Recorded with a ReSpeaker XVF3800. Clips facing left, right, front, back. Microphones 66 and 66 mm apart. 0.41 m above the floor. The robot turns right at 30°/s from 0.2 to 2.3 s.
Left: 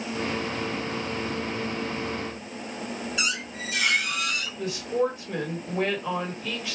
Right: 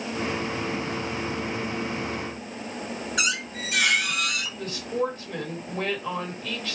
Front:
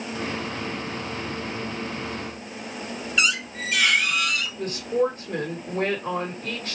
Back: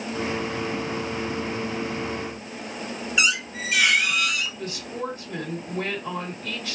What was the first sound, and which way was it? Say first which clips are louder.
A squeak: right 5 dB, even; 95° right.